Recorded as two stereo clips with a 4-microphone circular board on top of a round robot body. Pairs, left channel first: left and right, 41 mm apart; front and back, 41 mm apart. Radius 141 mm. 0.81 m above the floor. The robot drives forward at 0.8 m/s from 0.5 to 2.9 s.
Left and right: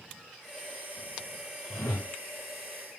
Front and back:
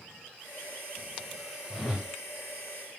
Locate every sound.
1.7 s a whoosh: 90° left, 1.3 m; by 2.1 s 105° left, 1.3 m